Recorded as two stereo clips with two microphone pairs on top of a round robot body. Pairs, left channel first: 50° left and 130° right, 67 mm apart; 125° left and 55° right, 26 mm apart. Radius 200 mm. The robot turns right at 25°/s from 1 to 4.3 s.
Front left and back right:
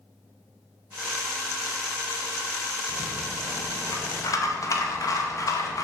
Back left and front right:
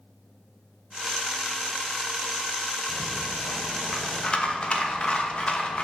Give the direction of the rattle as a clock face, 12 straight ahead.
10 o'clock.